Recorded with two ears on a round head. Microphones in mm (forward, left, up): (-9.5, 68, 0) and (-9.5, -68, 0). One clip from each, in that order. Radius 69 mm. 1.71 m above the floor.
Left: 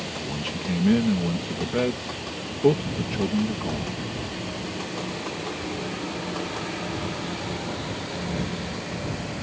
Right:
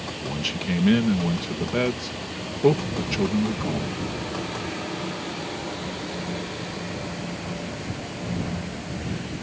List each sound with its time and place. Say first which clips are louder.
0.2 s a man speaking: right 2 dB; 65° right (ahead or behind)